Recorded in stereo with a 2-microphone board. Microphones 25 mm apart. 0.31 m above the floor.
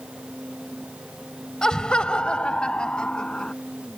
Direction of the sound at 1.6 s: 30° left (ahead or behind).